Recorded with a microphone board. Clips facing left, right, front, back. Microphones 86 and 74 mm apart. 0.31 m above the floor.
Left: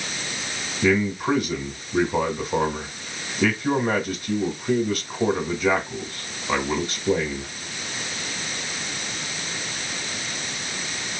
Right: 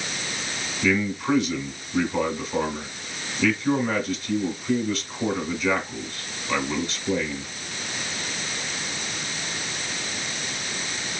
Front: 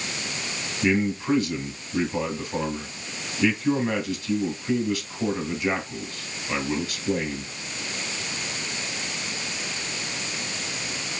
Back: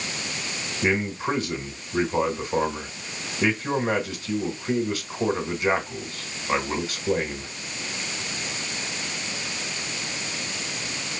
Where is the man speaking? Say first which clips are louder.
Left 2 dB, front 2 dB; 120° left, 2.5 m.